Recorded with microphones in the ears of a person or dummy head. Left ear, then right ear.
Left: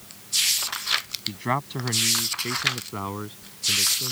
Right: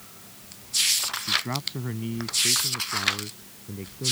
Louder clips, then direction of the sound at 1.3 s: Left 2 dB; 40° left (ahead or behind).